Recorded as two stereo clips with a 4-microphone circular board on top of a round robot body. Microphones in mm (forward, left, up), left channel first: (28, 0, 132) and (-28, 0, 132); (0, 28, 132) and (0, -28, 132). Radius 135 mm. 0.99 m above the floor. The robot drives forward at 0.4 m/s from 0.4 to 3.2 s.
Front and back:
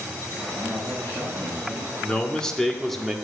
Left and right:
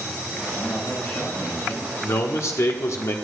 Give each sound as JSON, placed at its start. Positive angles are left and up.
{"t": 0.6, "sound": "a man speaking", "azimuth_deg": 50, "distance_m": 4.5}
{"t": 2.0, "sound": "a man speaking", "azimuth_deg": 70, "distance_m": 1.6}